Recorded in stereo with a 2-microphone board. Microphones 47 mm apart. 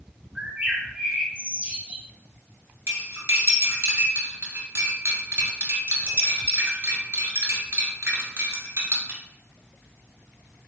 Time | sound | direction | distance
0.3 | a bird | 20° right (ahead or behind) | 1.0 m
2.9 | cutlery clinking | 60° right (ahead or behind) | 1.1 m